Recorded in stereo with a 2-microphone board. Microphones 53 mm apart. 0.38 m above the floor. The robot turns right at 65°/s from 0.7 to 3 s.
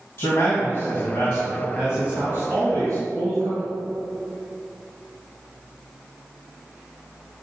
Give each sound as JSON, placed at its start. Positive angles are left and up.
{"t": 0.2, "sound": "a man speaking", "azimuth_deg": 120, "distance_m": 2.0}